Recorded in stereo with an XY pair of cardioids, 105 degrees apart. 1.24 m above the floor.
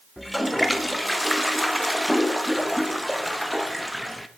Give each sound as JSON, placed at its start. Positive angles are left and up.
{"t": 0.2, "sound": "a toilet flushing", "azimuth_deg": 5, "distance_m": 1.0}